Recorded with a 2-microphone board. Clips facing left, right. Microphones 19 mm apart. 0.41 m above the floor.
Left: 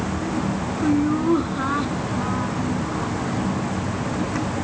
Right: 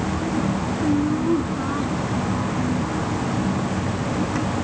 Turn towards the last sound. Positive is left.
turn(degrees=25)  # may be behind; listen again after turning